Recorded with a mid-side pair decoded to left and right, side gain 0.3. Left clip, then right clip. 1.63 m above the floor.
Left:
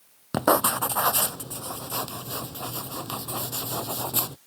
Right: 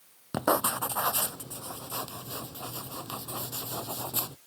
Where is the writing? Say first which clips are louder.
Left 5 dB; 50° left.